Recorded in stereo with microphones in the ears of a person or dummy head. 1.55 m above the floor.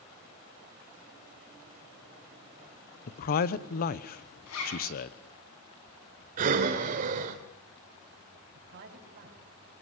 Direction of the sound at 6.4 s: 50° right (ahead or behind).